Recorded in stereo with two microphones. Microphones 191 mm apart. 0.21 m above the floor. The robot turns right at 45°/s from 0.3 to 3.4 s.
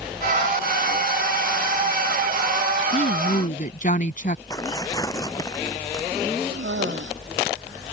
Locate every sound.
2.9 s a woman speaking: 35° left (ahead or behind); by 4.4 s 45° left (ahead or behind)
4.5 s tearing paper: 20° left (ahead or behind)
6.5 s a cough: 75° right (ahead or behind)